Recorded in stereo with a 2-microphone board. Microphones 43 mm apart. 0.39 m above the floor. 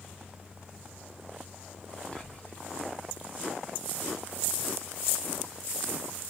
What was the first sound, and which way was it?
Whispering, 20° left (ahead or behind).